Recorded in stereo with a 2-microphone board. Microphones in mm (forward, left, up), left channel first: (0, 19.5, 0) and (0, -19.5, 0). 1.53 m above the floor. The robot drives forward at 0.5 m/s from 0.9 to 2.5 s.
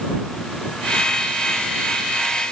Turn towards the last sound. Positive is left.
No sound to turn to.